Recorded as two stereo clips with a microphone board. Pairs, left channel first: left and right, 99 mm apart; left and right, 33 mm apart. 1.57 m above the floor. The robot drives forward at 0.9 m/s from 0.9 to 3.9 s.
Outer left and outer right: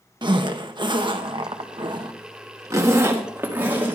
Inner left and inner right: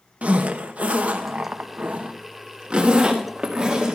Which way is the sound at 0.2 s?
50° right (ahead or behind).